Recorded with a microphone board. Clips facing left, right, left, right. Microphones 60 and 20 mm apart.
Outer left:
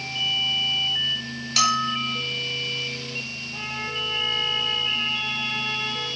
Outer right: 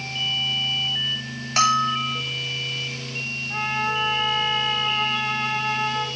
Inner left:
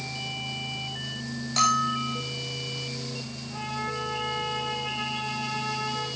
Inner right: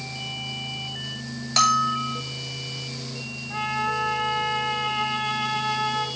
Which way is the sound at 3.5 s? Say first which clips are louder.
Outer right 8 dB, inner right 7 dB; 85° right.